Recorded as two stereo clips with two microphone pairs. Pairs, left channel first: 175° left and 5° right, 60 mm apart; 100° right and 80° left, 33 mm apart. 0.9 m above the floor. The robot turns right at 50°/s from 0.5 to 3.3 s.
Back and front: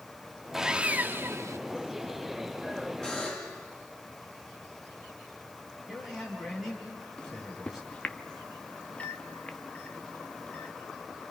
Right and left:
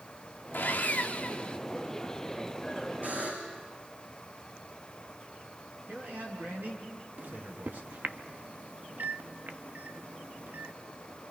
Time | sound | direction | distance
0.5 | sawing | 85° right | 0.7 m
3.0 | a buzzer | 95° left | 8.5 m
5.9 | a man speaking | 85° left | 6 m
7.2 | a microwave | 110° left | 0.7 m